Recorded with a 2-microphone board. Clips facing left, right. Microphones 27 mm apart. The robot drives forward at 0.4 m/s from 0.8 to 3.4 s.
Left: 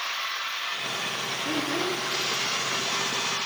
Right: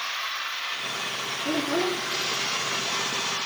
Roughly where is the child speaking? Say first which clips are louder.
Right 3 dB; right.